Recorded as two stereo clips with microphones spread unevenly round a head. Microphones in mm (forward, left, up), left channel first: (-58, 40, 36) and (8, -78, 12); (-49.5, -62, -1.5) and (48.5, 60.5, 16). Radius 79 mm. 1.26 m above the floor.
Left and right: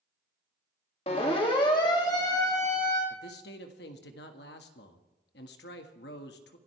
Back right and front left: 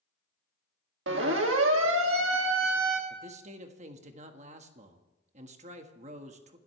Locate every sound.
1.1 s a siren: 65° left, 2.5 m; by 3.0 s 40° left, 2.5 m
3.1 s a man speaking: 100° left, 1.7 m